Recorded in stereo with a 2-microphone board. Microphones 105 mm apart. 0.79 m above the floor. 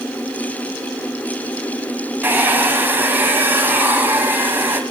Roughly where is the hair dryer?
Centre.